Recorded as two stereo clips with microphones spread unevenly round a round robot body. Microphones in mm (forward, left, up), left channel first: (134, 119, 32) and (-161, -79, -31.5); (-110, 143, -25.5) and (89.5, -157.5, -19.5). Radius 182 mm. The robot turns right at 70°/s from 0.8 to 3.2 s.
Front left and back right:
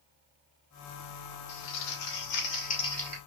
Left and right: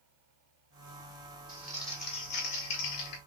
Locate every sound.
1.5 s crumpling: 20° left, 2.5 m; by 3.2 s 135° left, 2.5 m